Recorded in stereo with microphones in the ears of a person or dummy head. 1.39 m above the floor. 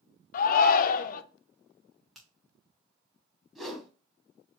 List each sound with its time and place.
0.3 s a shout: 50° left (ahead or behind), 0.6 m
2.1 s a finger snap: 5° right (ahead or behind), 1.3 m
3.5 s a whoosh: 5° left (ahead or behind), 1.0 m